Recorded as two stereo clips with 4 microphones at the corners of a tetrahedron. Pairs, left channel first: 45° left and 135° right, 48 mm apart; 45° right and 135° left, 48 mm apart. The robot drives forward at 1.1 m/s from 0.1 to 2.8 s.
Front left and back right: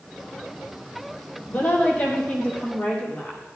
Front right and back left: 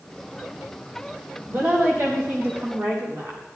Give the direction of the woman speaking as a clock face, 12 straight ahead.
9 o'clock.